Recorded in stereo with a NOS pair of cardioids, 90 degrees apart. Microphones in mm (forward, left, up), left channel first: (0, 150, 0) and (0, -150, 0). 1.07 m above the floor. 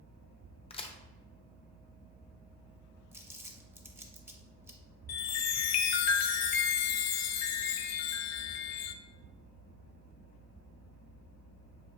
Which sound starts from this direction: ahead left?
A chime, at 5.1 s.